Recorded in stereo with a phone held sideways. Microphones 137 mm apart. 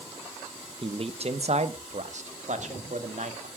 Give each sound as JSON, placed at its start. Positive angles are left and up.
{"t": 0.8, "sound": "a man speaking", "side_deg": -40, "distance_m": 0.9}